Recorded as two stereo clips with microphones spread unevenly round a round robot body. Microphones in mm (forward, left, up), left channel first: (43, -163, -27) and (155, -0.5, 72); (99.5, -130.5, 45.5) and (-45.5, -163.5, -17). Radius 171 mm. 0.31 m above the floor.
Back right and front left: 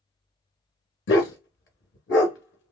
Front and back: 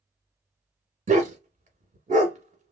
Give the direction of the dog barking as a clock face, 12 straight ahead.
4 o'clock.